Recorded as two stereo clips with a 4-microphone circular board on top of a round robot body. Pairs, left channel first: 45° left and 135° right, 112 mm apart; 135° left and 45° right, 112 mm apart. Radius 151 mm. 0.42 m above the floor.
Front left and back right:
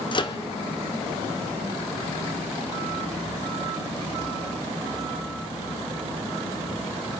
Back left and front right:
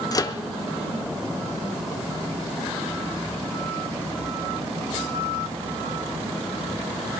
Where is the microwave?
85° left, 0.9 m.